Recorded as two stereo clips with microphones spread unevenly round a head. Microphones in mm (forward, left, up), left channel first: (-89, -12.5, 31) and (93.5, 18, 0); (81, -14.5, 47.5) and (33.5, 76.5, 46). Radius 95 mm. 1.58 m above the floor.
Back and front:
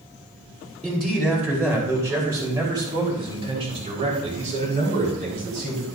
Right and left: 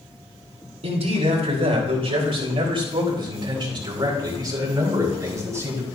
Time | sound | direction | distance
0.8 | a man speaking | 100° left | 4 m